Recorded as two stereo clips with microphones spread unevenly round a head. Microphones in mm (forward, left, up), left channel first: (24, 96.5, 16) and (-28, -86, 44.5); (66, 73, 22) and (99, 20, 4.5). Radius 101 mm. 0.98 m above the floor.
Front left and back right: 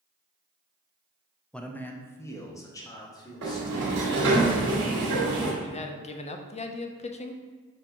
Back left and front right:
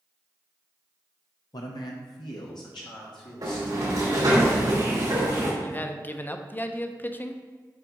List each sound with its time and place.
1.5 s a man speaking: 150° left, 0.6 m; by 4.4 s 145° left, 2.5 m
3.4 s a sliding door: 75° right, 2.5 m
5.6 s a man speaking: 55° left, 0.6 m